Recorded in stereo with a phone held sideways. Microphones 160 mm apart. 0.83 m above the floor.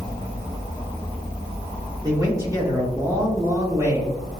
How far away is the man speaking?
About 1.7 m.